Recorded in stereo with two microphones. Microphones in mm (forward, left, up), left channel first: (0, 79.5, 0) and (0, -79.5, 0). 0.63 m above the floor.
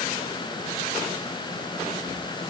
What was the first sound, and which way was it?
Only background noise.